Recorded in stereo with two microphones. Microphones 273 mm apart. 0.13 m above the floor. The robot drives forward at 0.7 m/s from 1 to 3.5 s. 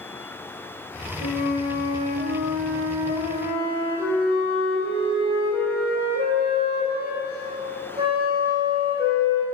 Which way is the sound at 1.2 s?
30° right (ahead or behind).